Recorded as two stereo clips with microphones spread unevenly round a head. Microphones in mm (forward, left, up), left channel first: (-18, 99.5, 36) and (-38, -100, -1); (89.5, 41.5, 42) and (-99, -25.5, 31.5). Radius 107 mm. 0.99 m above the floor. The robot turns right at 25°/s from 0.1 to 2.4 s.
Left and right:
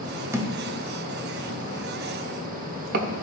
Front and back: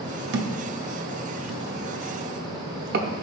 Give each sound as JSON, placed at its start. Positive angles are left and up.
{"t": 0.3, "sound": "a thud", "azimuth_deg": 180, "distance_m": 0.8}